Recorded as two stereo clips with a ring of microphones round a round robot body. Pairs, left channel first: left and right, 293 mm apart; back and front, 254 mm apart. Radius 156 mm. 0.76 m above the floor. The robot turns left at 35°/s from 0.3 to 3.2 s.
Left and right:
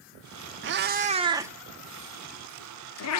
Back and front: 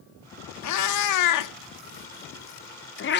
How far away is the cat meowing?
About 1.0 m.